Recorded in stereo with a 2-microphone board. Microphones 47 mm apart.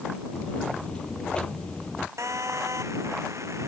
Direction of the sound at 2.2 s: 75° right (ahead or behind).